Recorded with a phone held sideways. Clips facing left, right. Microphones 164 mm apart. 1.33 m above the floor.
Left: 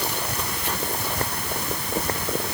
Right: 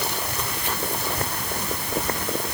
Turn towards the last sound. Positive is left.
No sound to turn to.